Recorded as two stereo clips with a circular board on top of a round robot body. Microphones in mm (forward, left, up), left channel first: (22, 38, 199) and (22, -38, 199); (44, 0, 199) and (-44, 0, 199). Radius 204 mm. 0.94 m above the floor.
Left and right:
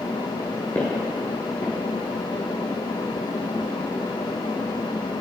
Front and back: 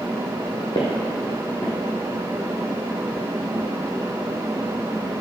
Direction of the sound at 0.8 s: 35° left.